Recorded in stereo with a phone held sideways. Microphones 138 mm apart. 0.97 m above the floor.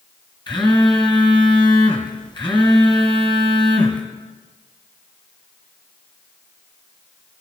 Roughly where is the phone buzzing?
Left.